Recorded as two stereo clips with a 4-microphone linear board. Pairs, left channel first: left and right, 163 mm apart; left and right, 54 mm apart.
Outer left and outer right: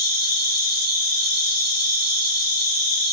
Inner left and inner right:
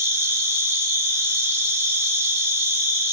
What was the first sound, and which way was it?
An insect, 75° right (ahead or behind).